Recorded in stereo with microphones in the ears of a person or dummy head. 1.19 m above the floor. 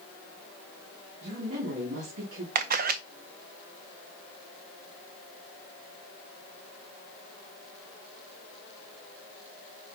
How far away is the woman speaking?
About 2.5 m.